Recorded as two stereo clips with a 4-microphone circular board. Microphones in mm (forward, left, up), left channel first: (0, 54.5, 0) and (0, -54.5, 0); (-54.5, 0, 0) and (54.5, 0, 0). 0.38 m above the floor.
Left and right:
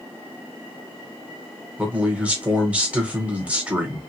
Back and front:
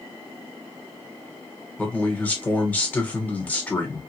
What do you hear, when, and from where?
1.8 s a man speaking: 140° right, 1.1 m